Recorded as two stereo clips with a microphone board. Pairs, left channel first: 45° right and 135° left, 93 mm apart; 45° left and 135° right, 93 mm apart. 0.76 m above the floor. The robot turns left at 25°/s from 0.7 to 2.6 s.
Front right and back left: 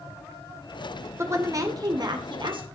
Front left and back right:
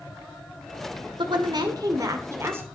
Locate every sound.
1.2 s a woman speaking: 165° right, 2 m; by 2.6 s 160° left, 2 m